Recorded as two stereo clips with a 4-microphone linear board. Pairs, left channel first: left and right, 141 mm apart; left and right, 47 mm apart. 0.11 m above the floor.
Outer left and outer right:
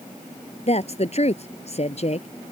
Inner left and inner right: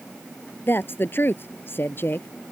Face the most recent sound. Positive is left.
turn(degrees=50)  # may be behind; listen again after turning